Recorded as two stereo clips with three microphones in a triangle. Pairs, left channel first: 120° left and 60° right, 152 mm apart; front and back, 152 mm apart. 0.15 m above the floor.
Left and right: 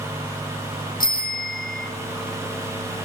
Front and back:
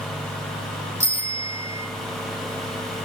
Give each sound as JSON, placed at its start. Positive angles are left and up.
{"t": 1.0, "sound": "a bicycle bell", "azimuth_deg": 110, "distance_m": 4.0}